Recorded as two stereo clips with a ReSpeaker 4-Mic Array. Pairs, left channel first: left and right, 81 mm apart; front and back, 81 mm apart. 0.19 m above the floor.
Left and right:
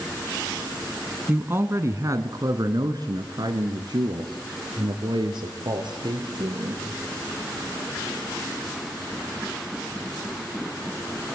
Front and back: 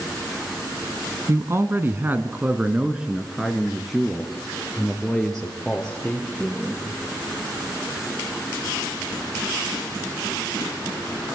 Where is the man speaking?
145° right, 1.4 m; by 6.8 s 75° right, 4 m.